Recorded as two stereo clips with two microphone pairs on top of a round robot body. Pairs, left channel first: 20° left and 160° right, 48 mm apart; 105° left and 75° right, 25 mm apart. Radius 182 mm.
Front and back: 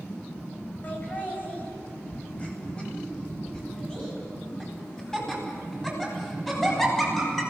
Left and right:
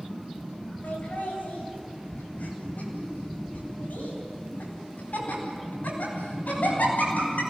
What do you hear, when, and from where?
0.8 s laughter: 75° left, 9 m; by 7.4 s 105° left, 13 m